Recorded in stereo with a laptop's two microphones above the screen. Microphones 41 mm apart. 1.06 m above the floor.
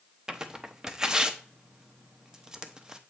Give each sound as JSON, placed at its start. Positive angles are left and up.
{"t": 0.3, "sound": "tearing paper", "side_deg": -20, "distance_m": 0.8}